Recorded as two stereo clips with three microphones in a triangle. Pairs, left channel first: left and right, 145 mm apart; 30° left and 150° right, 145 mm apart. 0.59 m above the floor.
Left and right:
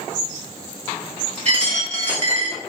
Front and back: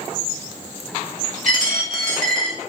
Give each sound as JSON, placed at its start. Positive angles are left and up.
{"t": 1.4, "sound": "a dropped coin", "azimuth_deg": -130, "distance_m": 1.4}